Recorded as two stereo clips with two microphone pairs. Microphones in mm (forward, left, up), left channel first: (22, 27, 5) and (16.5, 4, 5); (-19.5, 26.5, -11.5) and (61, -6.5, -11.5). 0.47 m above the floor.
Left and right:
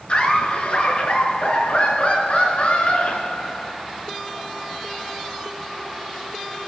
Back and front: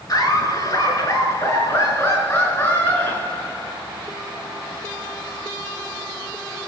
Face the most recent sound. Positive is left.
turn(degrees=85)